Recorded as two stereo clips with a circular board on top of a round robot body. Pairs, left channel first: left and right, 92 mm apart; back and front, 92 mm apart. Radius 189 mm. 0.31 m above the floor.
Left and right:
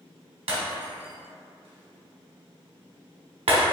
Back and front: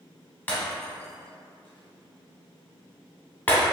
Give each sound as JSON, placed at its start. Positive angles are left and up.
{"t": 0.5, "sound": "breaking glass", "azimuth_deg": -110, "distance_m": 0.8}